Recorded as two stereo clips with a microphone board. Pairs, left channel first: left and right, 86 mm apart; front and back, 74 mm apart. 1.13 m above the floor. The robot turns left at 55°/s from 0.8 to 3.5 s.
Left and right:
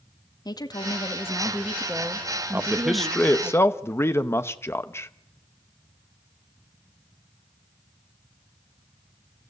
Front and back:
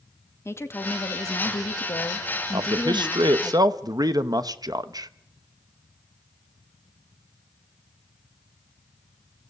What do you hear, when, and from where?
0.5 s a woman speaking: 50° left, 1.8 m; by 3.5 s 95° right, 1.8 m
2.5 s a man speaking: 155° right, 1.0 m; by 5.1 s 150° left, 1.0 m